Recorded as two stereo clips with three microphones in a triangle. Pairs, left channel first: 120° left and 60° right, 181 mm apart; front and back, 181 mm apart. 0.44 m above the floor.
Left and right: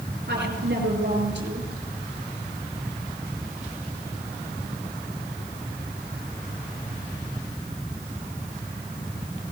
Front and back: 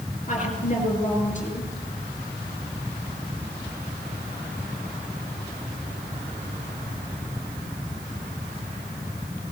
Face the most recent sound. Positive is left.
turn(degrees=-45)